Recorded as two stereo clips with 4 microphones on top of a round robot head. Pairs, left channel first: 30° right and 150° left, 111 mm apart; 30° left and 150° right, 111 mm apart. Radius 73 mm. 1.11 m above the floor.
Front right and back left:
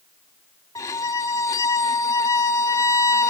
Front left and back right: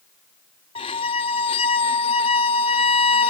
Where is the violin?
20° left, 0.7 m.